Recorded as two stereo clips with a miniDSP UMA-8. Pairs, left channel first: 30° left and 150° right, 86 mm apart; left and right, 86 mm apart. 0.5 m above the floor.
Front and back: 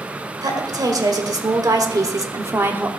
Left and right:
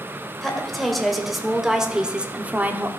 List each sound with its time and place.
0.4 s a woman speaking: 175° left, 1.7 m; by 2.9 s 120° right, 0.8 m